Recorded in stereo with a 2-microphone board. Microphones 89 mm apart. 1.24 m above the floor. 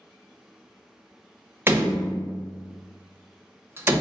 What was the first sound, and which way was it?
A door slam, 25° right (ahead or behind).